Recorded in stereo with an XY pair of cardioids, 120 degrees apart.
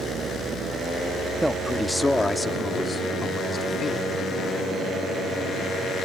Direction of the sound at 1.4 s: 5° right.